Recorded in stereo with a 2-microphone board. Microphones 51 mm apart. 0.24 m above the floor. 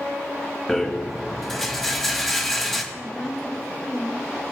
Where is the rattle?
5° left (ahead or behind), 1.7 m.